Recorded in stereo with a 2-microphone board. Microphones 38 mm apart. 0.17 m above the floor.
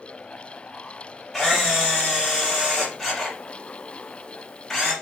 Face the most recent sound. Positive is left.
turn(degrees=5)  # may be behind; listen again after turning